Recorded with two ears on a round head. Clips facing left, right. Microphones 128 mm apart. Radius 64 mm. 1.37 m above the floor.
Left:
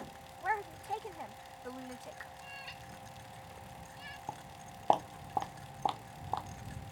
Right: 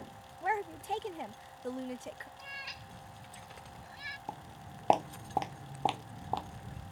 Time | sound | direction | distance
0.4 | a woman speaking | 30° right (ahead or behind) | ?
2.4 | a cat meowing | 65° right (ahead or behind) | ?
4.3 | footsteps | 10° right (ahead or behind) | ?